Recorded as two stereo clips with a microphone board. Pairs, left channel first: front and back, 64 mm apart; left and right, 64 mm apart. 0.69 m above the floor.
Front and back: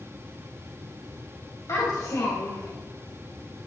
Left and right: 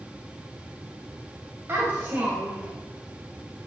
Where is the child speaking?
35° right, 3 m; by 2.7 s 20° right, 1.5 m.